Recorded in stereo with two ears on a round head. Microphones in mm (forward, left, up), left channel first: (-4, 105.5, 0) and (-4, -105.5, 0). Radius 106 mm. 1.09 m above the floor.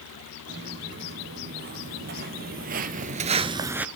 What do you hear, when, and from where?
0.5 s footsteps: 45° right (ahead or behind), 4 m; by 3.9 s 5° right (ahead or behind), 1.0 m